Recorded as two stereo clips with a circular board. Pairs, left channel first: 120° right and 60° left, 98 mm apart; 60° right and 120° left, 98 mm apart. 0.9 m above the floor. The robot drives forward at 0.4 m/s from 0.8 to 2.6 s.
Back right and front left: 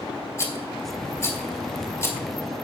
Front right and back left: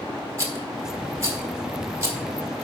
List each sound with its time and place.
0.4 s a rattle: straight behind, 1.7 m